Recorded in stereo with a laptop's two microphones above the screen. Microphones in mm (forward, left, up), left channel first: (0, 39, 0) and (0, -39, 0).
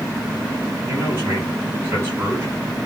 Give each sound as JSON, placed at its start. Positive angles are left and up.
{"t": 0.9, "sound": "a man speaking", "side_deg": -35, "distance_m": 6.5}